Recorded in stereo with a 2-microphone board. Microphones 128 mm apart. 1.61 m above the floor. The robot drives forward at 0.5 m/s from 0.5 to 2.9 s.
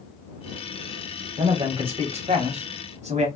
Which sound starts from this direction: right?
A man speaking, at 1.4 s.